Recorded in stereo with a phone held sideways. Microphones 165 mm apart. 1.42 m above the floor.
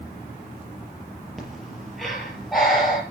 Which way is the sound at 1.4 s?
Centre (ahead or behind).